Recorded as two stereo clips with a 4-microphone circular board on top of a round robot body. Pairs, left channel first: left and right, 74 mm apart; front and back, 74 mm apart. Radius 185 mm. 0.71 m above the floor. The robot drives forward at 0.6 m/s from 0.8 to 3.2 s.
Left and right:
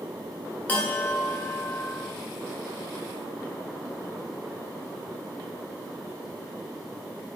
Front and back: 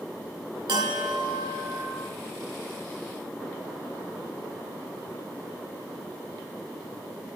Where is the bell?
160° left, 1.1 m; by 2.0 s 170° left, 1.9 m.